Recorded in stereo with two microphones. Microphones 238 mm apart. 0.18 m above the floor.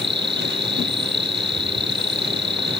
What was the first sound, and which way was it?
An insect, 50° right (ahead or behind).